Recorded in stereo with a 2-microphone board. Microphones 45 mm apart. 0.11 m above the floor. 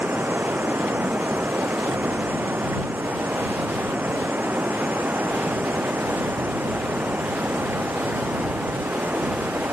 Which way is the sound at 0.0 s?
45° right (ahead or behind).